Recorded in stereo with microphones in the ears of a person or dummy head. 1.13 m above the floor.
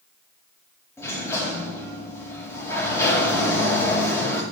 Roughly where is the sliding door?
Centre.